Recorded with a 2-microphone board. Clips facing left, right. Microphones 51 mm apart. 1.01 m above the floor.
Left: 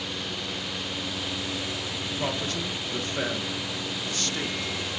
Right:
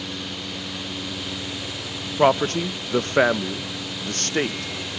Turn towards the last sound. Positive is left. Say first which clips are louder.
# right 14 dB
turn(degrees=-50)  # may be behind; listen again after turning